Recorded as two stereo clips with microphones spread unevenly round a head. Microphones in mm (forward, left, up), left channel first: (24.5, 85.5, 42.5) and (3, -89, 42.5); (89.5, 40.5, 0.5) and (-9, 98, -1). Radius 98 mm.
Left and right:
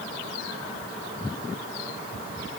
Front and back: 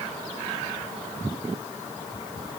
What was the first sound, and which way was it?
Only background noise.